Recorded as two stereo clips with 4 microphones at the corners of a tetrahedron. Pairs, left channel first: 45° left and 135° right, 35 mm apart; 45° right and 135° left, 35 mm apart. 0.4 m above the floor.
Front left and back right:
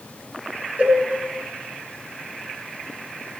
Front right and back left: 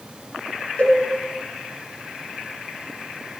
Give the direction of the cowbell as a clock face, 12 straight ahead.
3 o'clock.